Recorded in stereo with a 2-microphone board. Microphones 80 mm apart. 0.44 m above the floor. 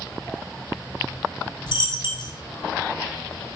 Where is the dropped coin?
65° left (ahead or behind), 1.1 m.